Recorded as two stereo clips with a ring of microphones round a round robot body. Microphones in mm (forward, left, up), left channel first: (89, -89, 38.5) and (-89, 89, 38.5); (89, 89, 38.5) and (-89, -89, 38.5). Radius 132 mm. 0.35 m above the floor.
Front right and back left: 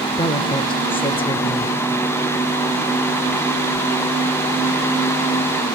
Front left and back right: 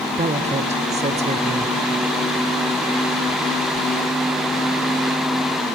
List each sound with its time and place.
0.1 s a woman speaking: 95° right, 0.9 m